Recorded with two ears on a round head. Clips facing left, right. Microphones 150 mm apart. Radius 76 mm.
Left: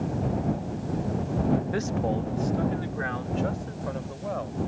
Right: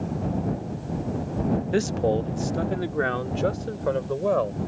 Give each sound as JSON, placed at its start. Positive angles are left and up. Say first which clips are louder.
{"t": 1.7, "sound": "a man speaking", "louder": "right 5 dB", "side_deg": -30}